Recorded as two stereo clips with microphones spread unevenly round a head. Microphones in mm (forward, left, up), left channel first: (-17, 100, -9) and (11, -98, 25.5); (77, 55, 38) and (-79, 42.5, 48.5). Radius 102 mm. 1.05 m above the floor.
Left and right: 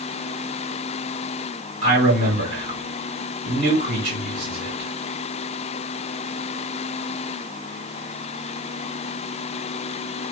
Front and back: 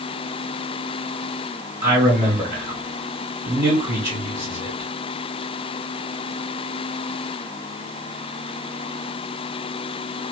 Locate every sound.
1.8 s a man speaking: 105° right, 2.5 m